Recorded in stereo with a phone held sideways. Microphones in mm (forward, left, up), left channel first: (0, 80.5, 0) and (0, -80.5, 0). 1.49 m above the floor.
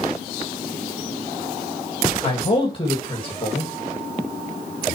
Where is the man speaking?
35° left (ahead or behind), 2 m.